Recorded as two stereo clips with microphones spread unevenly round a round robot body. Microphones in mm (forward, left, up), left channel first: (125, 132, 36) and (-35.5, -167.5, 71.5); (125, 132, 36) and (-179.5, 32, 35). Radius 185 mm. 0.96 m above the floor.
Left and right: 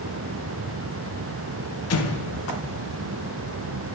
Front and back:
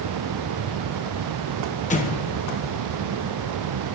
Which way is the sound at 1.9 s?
80° left.